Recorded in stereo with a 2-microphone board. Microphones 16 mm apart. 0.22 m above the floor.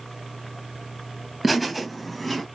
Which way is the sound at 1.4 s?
10° right (ahead or behind).